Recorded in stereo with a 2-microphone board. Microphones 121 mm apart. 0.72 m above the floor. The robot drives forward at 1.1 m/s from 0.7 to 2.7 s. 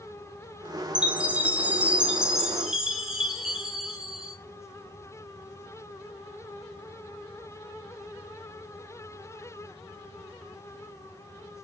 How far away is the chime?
About 1.0 m.